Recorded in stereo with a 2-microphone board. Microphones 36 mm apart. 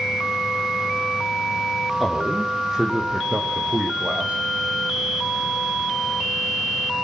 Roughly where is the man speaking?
Centre.